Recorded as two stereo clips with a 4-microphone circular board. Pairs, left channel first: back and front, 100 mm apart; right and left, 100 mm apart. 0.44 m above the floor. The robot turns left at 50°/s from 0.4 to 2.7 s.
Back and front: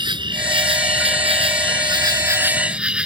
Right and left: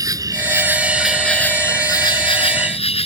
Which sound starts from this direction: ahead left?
An insect, at 0.0 s.